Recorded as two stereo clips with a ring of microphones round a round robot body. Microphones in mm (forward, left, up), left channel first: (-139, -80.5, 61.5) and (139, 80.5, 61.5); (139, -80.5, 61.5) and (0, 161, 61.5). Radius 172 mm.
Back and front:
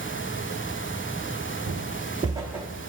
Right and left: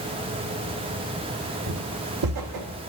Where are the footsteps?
85° left, 0.8 m; by 2.7 s 120° left, 1.0 m.